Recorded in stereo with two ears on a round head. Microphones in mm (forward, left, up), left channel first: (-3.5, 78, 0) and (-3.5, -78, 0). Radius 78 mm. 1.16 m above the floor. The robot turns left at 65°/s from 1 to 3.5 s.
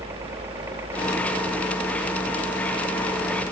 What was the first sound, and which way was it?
A helicopter, 15° right.